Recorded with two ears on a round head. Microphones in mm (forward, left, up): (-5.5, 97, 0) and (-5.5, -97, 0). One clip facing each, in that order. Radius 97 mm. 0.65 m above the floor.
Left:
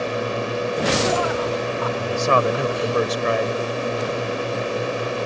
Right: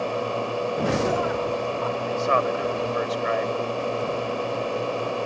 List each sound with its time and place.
0.0 s a drone: 25° left (ahead or behind)
2.0 s a man speaking: 60° left (ahead or behind)